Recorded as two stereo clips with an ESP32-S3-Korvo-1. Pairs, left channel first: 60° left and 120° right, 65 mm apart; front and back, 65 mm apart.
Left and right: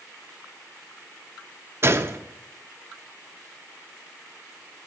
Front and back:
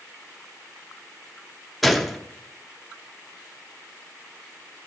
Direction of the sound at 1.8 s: 90° right.